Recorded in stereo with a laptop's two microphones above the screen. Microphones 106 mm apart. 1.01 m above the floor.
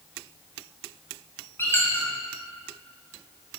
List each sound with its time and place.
1.6 s a squeak: 20° left (ahead or behind), 1.2 m